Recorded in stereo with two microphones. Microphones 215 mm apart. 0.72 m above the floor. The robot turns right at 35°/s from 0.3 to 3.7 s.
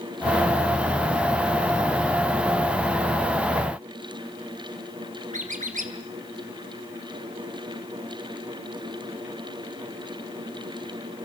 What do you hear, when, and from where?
5.3 s a squeak: 35° right (ahead or behind), 2 m